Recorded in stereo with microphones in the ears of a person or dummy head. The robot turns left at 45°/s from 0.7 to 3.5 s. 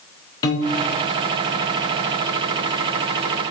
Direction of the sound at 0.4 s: 25° left (ahead or behind).